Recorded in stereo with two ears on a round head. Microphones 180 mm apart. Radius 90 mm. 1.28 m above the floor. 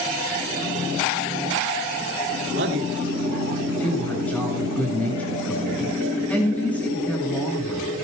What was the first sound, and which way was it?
A man speaking, 60° right (ahead or behind).